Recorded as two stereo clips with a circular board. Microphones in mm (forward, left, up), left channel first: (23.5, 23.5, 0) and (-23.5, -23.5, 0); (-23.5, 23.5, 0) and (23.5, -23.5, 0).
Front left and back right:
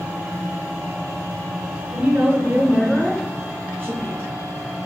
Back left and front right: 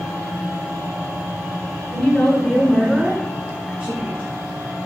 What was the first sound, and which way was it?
A woman speaking, 170° right.